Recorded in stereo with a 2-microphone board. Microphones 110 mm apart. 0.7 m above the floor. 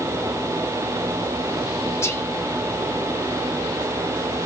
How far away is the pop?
I don't hear a pop.